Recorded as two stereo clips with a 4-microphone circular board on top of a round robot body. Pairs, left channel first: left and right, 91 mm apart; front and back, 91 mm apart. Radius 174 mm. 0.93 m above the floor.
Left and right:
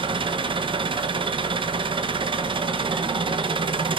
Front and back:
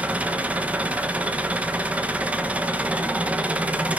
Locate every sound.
0.0 s an engine running: 105° right, 1.1 m